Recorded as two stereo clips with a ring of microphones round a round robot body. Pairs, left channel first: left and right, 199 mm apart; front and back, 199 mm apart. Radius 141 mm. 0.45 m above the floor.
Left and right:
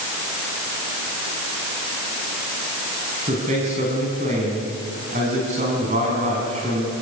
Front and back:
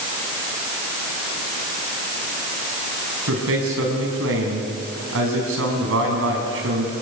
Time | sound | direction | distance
3.3 | a man speaking | 155° right | 4 m